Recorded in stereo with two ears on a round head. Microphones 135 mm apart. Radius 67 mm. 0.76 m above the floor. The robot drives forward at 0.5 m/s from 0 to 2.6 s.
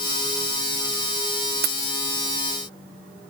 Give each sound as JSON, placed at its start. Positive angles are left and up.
{"t": 1.6, "sound": "keys jangling", "side_deg": -70, "distance_m": 1.0}